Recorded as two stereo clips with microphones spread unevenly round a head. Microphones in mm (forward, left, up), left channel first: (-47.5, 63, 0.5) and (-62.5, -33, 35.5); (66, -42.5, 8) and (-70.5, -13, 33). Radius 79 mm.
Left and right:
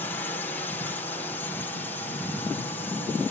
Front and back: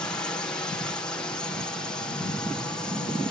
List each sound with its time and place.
0.0 s a drone: 55° left